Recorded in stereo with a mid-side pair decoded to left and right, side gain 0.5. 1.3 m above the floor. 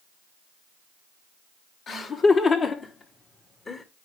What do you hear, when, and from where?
1.9 s laughter: 55° left, 4 m; by 3.9 s 30° left, 2.5 m